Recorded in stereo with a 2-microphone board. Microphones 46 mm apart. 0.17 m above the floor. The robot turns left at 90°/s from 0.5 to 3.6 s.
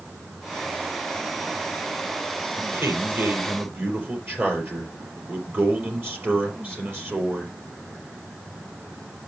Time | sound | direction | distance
2.6 | a man speaking | 40° right | 4 m